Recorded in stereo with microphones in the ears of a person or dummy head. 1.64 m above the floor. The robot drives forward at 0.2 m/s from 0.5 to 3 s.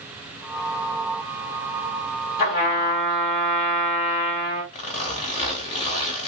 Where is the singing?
No singing in this recording.